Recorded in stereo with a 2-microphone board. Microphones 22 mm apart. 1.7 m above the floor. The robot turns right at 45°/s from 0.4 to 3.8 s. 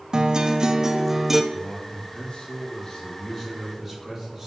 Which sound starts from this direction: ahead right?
A guitar, at 0.1 s.